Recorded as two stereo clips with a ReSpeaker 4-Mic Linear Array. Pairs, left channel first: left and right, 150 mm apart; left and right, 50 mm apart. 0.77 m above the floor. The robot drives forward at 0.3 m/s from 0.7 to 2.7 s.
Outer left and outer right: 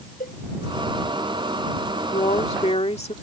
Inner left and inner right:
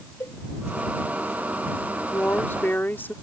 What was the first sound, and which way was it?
A cowbell, 70° left (ahead or behind).